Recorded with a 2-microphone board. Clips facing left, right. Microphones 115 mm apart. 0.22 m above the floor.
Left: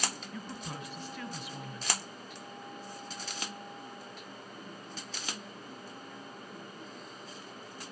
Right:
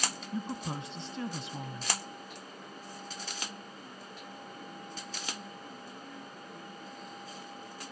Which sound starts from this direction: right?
A woman speaking, at 0.3 s.